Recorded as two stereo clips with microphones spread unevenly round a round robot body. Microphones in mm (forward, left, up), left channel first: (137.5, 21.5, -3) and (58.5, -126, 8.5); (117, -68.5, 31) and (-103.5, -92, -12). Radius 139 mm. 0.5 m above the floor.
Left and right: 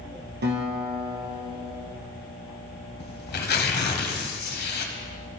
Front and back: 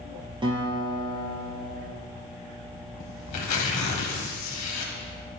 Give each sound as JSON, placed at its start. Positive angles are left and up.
{"t": 0.4, "sound": "a guitar", "azimuth_deg": -105, "distance_m": 2.5}
{"t": 3.0, "sound": "tearing paper", "azimuth_deg": 45, "distance_m": 1.2}